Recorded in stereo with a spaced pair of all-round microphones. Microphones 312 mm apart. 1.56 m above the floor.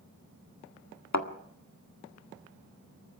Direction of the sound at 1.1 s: 60° left (ahead or behind).